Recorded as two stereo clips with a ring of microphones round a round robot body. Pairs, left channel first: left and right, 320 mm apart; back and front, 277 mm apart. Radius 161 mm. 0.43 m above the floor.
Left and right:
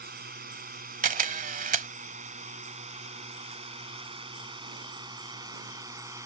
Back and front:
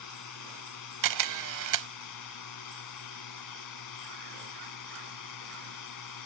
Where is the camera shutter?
25° right.